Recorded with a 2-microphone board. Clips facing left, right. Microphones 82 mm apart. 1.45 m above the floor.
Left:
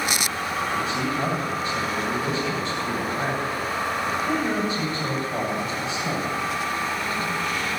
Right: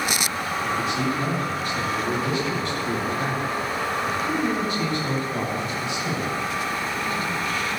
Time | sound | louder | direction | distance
0.6 | a man speaking | right 2 dB | 20° left (ahead or behind) | 9 m